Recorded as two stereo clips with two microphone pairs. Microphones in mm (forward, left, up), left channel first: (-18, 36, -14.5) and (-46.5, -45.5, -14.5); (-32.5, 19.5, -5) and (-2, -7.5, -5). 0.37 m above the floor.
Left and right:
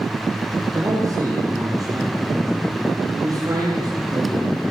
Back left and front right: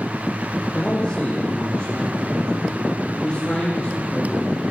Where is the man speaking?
160° right, 10 m; by 4.6 s 155° right, 12 m.